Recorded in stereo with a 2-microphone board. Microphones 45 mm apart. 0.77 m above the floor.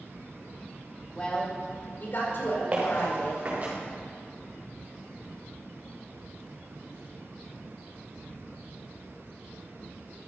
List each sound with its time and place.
1.1 s a woman speaking: 15° left (ahead or behind), 2.5 m; by 3.7 s 70° left (ahead or behind), 5 m
2.7 s footsteps: 25° right (ahead or behind), 4.5 m; by 3.7 s 35° right (ahead or behind), 5 m